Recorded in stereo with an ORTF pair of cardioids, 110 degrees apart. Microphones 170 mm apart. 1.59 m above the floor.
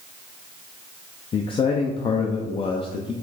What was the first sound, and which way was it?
A man speaking, 35° left.